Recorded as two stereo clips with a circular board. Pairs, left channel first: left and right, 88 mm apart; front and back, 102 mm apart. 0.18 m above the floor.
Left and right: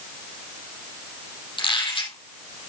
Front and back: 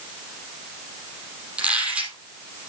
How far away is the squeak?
About 4.5 m.